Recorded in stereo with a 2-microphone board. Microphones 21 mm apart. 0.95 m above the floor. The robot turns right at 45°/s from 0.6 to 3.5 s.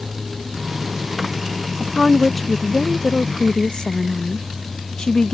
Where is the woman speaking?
10° right; by 5.3 s 65° left.